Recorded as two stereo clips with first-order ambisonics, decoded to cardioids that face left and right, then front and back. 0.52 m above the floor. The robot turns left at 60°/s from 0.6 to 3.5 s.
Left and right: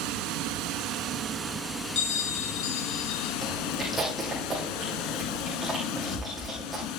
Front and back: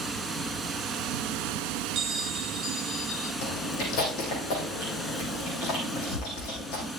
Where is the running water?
110° right, 0.9 m; by 7.0 s 75° left, 0.9 m.